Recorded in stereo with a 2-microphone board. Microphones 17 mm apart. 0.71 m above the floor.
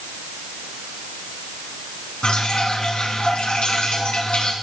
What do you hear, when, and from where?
2.2 s dripping: 85° left, 3.5 m